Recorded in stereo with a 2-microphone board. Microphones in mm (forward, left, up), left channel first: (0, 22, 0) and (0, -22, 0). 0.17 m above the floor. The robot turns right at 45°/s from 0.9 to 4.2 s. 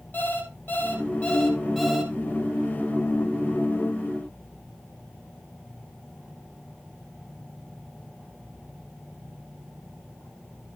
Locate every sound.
0.1 s an alarm clock: 135° left, 2.5 m; by 2.1 s 170° right, 2.5 m